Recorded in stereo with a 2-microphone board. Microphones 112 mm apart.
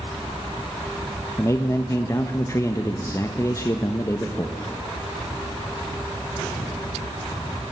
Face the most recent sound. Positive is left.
turn(degrees=25)  # may be behind; listen again after turning